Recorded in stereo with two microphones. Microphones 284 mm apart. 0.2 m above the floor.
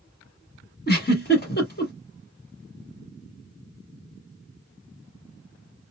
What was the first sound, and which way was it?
A giggle, 35° left (ahead or behind).